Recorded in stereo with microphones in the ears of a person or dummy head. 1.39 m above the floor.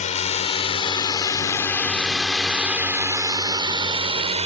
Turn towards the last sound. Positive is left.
turn(degrees=-30)  # may be behind; listen again after turning